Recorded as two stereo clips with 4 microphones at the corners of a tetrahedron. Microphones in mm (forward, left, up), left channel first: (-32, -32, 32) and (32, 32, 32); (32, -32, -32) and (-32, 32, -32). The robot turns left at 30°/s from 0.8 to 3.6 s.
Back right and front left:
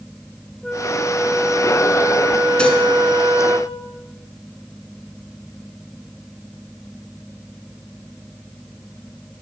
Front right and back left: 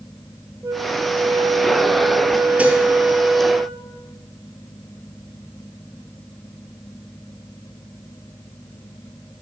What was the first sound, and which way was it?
A flute, 145° left.